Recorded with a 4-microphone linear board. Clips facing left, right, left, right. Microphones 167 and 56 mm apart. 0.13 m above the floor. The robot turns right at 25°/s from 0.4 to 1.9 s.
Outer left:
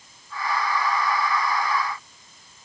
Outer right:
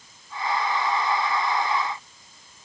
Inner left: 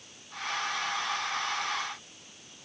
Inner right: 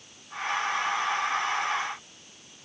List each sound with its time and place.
Only background noise.